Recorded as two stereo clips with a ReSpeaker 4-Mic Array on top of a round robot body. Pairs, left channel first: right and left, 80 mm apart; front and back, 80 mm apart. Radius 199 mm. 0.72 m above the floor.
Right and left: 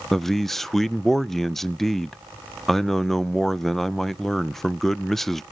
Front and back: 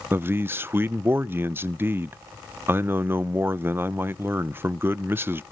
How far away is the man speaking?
About 0.6 m.